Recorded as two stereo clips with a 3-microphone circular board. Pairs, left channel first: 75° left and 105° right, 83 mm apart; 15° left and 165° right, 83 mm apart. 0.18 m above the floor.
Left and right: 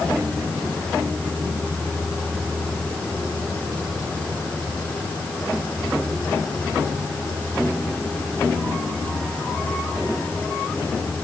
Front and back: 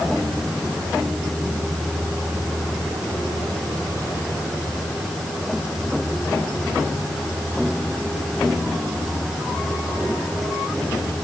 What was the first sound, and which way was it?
Only background noise.